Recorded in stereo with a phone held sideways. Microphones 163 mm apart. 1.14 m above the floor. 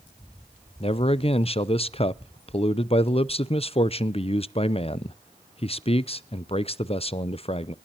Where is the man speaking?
35° left (ahead or behind), 0.5 m.